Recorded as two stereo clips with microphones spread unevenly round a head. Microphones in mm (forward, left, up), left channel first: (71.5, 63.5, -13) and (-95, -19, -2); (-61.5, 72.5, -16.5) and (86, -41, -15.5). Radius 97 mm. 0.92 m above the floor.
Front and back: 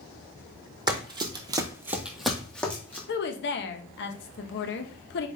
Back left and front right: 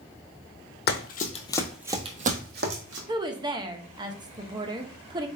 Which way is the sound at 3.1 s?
25° left.